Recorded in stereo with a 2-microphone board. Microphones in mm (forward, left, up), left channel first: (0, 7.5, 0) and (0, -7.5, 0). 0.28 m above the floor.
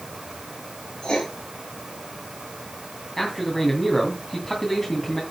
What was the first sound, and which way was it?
Writing, 65° left (ahead or behind).